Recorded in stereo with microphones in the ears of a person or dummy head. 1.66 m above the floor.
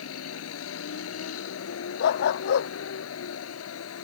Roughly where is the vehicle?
Left.